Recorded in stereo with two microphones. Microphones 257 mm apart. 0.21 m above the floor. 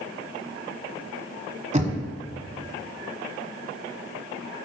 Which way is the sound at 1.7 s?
25° right (ahead or behind).